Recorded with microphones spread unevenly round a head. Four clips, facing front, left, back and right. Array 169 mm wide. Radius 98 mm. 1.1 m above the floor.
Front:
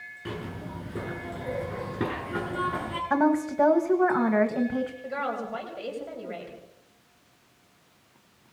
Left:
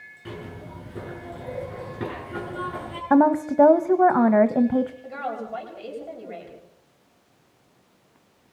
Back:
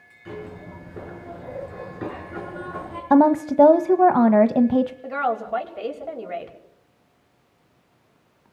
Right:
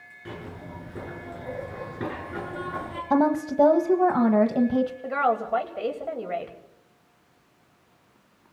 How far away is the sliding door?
I don't hear a sliding door.